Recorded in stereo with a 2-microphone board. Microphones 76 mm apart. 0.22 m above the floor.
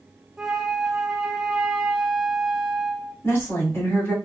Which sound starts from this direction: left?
A woman speaking, at 3.2 s.